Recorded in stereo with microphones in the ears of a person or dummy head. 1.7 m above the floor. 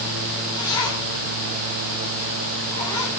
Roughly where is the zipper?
Centre.